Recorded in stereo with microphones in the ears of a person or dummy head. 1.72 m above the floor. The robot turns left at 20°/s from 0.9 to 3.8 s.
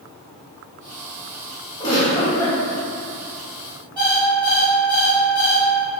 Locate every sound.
1.8 s a giggle: 25° left (ahead or behind), 1.4 m; by 2.6 s 10° left (ahead or behind), 1.4 m
4.0 s an alarm clock: 30° right (ahead or behind), 1.1 m